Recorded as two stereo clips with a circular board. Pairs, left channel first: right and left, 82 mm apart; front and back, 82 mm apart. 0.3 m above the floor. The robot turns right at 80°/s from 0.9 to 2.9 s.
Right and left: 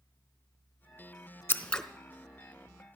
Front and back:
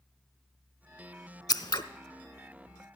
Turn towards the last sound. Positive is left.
turn(degrees=80)